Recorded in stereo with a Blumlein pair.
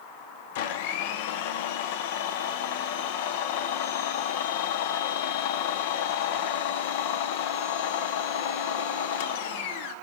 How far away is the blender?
About 0.8 m.